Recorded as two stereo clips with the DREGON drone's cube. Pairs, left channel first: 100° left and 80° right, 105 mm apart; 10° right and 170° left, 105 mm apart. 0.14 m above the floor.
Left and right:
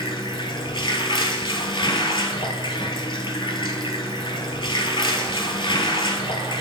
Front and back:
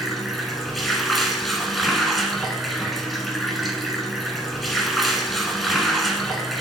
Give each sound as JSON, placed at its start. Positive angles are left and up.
{"t": 0.0, "sound": "running water", "azimuth_deg": 80, "distance_m": 0.9}